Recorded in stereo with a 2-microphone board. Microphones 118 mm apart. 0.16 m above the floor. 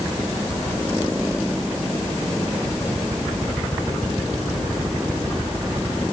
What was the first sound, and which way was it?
Only background noise.